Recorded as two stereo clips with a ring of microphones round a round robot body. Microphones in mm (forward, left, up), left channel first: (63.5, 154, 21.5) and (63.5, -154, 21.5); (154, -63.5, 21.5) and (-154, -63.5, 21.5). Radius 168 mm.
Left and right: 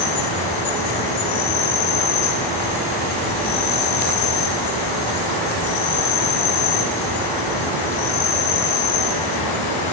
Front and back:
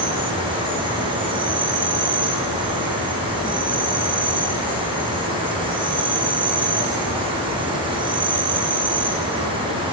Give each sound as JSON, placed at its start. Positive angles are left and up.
{"t": 0.0, "sound": "an insect", "azimuth_deg": 105, "distance_m": 4.0}